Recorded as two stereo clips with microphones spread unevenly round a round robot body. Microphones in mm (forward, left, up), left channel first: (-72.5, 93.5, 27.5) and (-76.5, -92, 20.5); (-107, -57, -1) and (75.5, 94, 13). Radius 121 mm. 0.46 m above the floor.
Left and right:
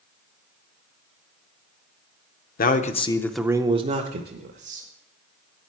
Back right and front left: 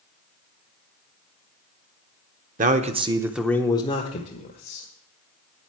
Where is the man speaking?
85° left, 0.9 m; by 4.9 s 90° right, 1.5 m.